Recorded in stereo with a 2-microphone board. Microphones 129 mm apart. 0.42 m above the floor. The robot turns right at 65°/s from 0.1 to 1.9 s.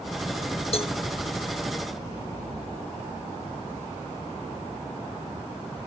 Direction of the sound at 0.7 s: 50° left (ahead or behind).